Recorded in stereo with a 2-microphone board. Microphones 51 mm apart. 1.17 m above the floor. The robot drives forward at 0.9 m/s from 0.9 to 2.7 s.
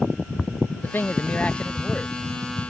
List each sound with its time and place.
0.8 s a man speaking: 40° left (ahead or behind); by 2.1 s 15° left (ahead or behind)